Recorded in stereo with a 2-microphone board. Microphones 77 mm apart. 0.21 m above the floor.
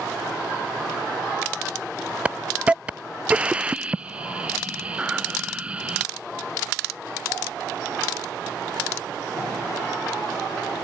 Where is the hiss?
15° right (ahead or behind).